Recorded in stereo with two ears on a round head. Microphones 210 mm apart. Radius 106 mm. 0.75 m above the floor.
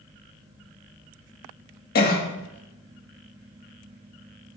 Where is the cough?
40° left (ahead or behind), 1.5 m.